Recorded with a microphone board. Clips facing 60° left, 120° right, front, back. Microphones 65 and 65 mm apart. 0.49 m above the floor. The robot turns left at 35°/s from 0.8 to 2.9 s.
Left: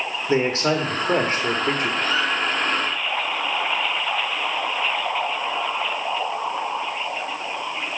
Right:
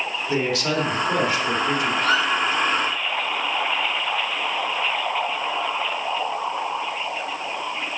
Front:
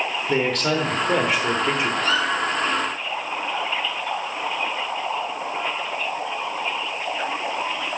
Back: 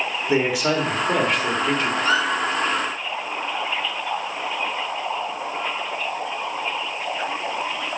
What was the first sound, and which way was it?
A man speaking, 100° left.